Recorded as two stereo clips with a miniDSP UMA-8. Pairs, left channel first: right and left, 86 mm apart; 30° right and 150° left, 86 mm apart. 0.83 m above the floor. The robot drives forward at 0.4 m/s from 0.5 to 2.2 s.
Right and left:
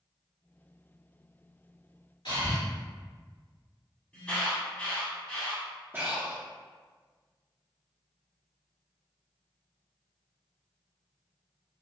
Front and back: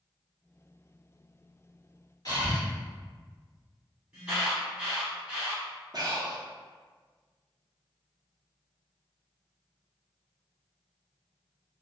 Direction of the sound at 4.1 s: 145° right.